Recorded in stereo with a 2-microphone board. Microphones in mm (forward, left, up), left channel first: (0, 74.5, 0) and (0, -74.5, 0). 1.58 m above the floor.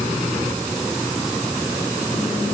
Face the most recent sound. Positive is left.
No sound to turn to.